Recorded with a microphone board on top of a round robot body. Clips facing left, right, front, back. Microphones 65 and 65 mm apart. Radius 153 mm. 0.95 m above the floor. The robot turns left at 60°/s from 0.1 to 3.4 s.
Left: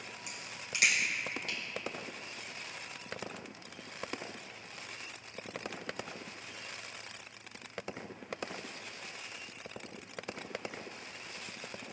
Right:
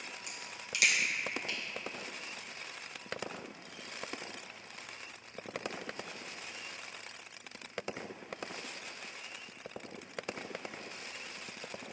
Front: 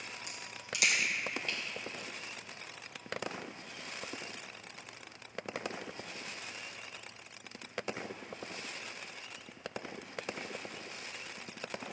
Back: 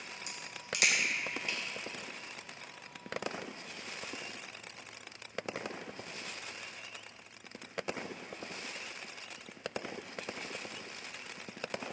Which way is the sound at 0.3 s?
175° left.